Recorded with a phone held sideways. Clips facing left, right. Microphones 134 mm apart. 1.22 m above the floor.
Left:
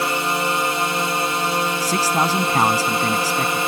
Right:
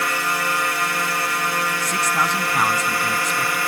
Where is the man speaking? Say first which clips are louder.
Left 4 dB; 30° left (ahead or behind).